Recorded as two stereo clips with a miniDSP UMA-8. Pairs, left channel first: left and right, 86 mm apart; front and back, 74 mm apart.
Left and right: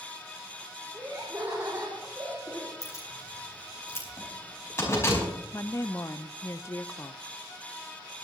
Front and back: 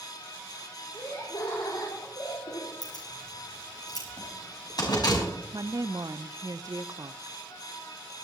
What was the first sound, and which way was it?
Laughter, 30° right.